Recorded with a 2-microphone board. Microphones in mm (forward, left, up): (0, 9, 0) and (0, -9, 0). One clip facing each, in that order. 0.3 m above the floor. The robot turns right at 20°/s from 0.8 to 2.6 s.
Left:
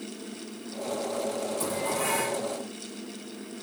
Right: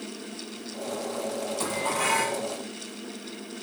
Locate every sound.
1.6 s dishes clattering: 35° right (ahead or behind), 1.6 m; by 2.4 s 20° right (ahead or behind), 1.6 m